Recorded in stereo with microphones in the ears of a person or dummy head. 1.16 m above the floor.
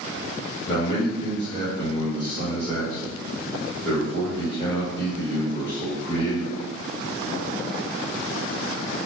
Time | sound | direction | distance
0.7 | a man speaking | 15° left (ahead or behind) | 1.6 m